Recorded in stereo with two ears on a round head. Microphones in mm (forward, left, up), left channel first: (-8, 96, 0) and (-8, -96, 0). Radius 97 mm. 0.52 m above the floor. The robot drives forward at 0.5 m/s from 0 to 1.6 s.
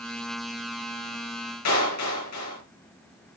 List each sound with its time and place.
1.6 s a clap: 85° left, 9.5 m